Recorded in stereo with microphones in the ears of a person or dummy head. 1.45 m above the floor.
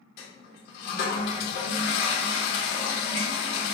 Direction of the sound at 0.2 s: 60° left (ahead or behind).